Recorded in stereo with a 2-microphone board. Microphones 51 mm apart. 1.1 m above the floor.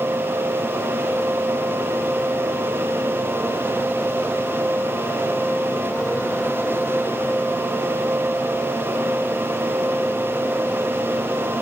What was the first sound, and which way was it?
Only background noise.